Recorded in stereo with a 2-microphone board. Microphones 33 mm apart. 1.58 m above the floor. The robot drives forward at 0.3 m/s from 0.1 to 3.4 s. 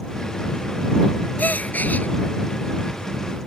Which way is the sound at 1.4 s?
50° left (ahead or behind).